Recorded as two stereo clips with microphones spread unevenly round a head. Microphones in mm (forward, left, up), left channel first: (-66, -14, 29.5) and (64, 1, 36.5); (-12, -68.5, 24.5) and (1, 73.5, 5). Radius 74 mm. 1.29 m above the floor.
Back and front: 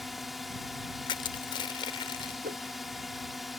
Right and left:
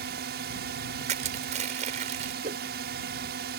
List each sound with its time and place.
0.0 s a drone: 95° left
1.1 s crushing: 130° left
2.4 s a whoosh: 40° left